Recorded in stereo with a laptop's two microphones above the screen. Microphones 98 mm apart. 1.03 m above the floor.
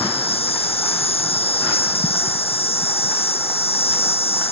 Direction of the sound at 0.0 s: 85° left.